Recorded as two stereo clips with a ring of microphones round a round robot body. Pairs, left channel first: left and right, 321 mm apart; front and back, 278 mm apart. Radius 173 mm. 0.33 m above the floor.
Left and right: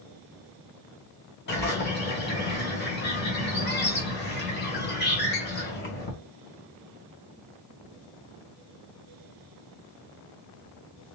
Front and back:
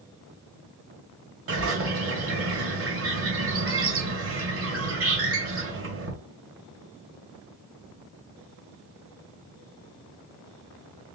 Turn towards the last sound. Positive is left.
turn(degrees=145)